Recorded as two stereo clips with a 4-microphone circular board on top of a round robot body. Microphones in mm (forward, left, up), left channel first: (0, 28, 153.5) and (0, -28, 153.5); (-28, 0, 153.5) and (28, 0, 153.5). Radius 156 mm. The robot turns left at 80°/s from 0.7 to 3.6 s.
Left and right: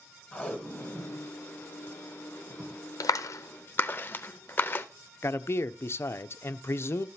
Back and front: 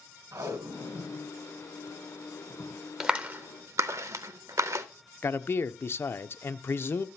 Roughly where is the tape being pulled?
Ahead left.